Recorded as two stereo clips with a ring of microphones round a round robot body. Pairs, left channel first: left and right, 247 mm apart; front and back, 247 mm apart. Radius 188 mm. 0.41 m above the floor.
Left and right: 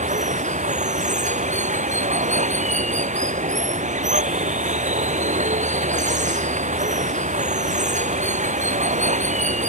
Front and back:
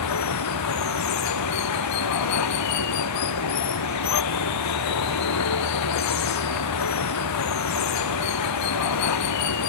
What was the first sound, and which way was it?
Running water, 30° right.